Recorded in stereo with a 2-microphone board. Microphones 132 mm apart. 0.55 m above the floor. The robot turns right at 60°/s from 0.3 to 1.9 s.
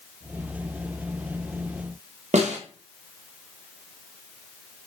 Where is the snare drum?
60° right (ahead or behind), 0.5 m.